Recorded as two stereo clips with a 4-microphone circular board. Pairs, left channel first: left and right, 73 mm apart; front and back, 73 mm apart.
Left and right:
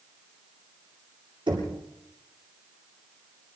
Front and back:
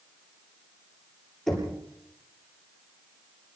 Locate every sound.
1.5 s knocking: 85° right, 9.5 m